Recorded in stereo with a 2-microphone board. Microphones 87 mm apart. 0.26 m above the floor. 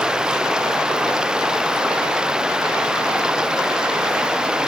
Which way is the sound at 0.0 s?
10° right (ahead or behind).